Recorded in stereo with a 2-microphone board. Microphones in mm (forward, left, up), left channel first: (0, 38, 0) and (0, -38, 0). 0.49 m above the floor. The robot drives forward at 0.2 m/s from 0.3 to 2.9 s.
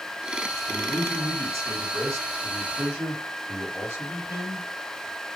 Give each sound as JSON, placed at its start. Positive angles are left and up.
{"t": 0.7, "sound": "a man speaking", "side_deg": -40, "distance_m": 3.0}